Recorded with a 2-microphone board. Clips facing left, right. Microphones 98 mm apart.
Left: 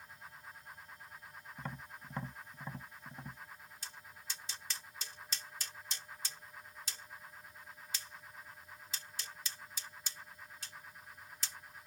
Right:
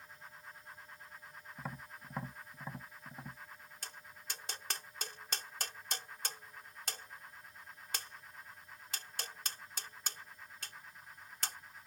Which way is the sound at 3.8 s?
60° right (ahead or behind).